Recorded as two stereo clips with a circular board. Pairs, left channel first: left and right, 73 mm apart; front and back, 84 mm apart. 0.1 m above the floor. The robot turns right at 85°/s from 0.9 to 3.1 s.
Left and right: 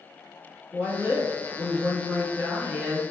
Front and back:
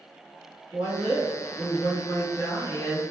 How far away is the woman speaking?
About 1.1 m.